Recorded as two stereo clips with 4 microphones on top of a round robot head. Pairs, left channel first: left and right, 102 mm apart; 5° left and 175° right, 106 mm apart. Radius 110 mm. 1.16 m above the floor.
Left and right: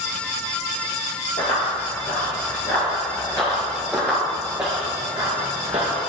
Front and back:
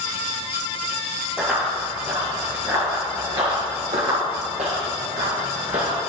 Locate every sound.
1.4 s running footsteps: 105° left, 1.8 m; by 6.0 s 135° right, 1.8 m